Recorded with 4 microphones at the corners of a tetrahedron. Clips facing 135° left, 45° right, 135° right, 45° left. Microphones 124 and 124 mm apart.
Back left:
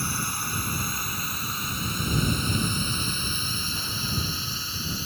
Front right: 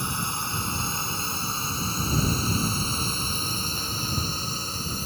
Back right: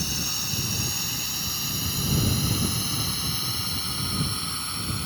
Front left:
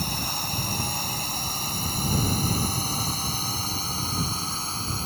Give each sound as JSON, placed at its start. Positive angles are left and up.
{"t": 0.0, "sound": "a drone", "azimuth_deg": 20}